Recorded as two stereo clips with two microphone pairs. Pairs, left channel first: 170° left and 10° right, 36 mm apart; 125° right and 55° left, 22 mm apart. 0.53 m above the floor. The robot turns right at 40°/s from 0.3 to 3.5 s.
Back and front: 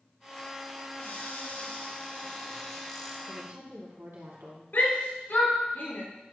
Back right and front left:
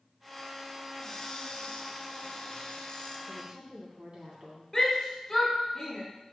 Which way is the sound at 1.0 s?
175° left.